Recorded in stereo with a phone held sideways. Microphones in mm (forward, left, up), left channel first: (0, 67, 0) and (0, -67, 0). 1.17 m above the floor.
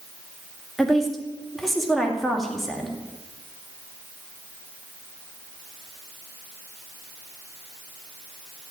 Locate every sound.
0.8 s a woman speaking: centre (ahead or behind), 2 m